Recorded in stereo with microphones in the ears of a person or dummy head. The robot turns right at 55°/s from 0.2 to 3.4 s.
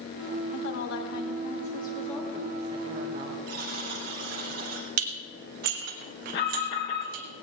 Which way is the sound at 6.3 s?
70° left (ahead or behind).